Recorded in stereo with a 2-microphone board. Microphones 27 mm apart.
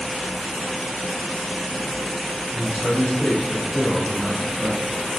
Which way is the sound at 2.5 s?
55° left (ahead or behind).